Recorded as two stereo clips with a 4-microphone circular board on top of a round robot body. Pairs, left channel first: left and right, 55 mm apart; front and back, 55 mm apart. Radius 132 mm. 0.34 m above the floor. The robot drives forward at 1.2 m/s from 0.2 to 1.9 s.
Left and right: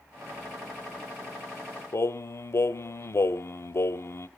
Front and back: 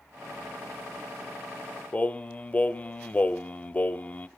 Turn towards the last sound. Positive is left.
turn(degrees=60)